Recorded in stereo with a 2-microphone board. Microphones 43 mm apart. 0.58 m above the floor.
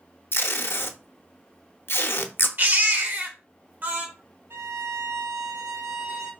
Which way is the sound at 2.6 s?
40° right (ahead or behind).